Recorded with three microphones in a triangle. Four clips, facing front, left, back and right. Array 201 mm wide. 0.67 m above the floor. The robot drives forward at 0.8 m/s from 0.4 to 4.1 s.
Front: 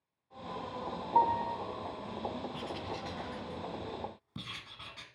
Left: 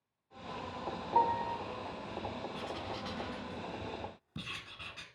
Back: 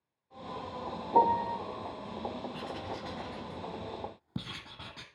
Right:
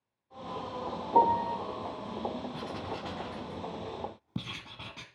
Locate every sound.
1.1 s a piano: 135° right, 0.8 m; by 1.6 s 150° right, 1.1 m
2.5 s writing: 70° right, 1.3 m; by 5.0 s 125° right, 1.4 m